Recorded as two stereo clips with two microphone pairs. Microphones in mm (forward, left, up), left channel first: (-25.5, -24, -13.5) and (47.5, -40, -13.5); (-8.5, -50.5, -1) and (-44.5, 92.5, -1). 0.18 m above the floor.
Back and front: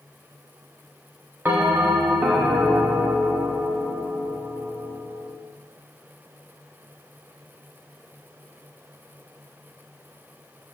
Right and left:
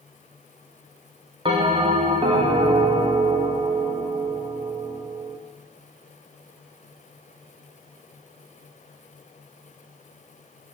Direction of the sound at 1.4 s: 50° left.